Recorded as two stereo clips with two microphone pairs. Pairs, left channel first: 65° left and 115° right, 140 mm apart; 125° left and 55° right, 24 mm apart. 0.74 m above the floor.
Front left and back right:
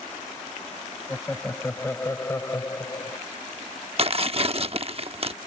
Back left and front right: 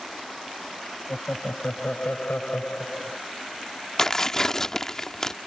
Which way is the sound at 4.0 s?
165° right.